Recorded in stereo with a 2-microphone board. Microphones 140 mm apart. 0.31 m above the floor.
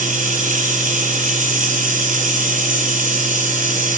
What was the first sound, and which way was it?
Running water, 70° right (ahead or behind).